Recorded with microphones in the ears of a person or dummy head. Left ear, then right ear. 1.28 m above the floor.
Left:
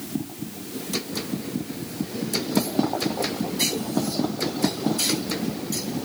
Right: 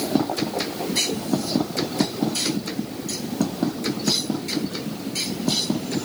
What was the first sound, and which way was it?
Only background noise.